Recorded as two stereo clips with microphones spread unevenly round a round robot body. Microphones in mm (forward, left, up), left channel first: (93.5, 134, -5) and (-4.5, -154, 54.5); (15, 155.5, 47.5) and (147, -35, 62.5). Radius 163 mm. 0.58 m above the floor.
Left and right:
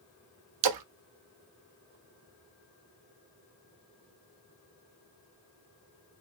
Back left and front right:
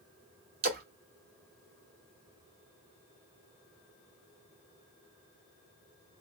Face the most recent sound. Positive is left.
turn(degrees=-105)